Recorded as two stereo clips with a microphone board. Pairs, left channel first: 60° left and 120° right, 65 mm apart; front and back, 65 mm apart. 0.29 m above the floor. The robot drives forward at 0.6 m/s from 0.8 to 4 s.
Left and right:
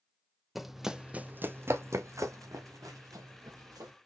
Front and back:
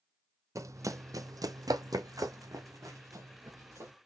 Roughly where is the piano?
I don't hear a piano.